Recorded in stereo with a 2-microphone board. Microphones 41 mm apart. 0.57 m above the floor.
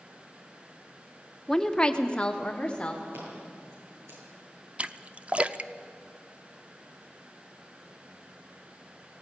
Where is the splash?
30° right (ahead or behind), 0.5 m.